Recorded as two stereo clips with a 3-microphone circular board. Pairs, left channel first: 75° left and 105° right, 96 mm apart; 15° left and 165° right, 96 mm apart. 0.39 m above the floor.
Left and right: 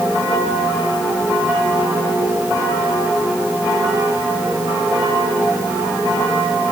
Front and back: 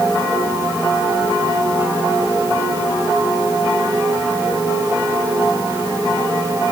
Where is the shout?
No shout in this recording.